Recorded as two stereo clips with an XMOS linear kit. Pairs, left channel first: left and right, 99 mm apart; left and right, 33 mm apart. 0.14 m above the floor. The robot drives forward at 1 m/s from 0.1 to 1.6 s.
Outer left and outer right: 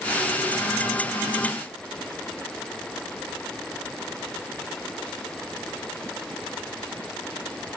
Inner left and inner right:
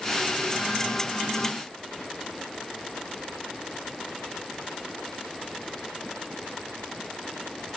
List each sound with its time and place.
Only background noise.